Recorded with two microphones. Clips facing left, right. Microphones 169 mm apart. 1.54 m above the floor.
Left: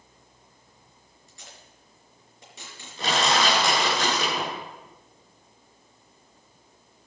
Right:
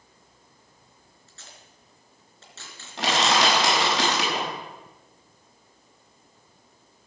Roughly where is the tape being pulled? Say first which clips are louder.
Left 2 dB; centre.